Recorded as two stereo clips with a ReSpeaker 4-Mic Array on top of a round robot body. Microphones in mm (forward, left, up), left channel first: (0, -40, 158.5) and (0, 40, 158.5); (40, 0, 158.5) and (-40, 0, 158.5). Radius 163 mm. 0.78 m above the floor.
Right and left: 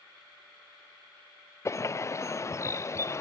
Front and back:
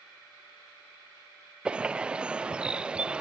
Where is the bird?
110° right, 0.5 m.